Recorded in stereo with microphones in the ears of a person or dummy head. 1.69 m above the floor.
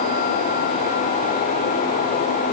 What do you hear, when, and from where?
Only background noise.